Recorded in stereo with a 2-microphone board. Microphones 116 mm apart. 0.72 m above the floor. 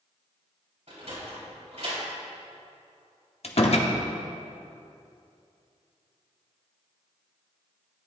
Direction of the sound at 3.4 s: 60° left (ahead or behind).